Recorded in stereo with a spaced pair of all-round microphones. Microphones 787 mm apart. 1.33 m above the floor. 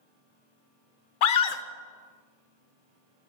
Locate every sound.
1.2 s a scream: 80° left, 0.9 m